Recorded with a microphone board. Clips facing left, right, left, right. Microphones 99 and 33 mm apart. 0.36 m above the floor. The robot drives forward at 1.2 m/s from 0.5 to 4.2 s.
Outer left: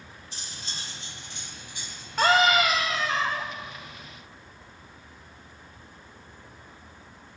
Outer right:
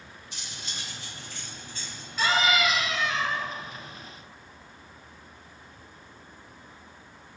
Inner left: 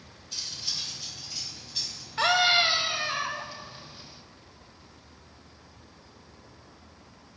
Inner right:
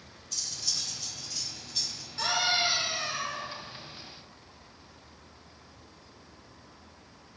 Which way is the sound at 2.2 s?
55° left (ahead or behind).